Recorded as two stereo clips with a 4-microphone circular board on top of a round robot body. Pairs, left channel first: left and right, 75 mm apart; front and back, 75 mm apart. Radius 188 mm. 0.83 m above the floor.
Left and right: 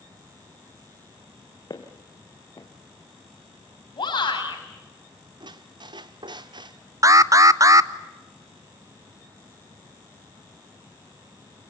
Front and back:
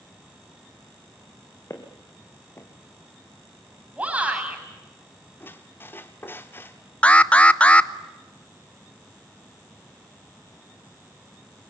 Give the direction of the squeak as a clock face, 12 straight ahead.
2 o'clock.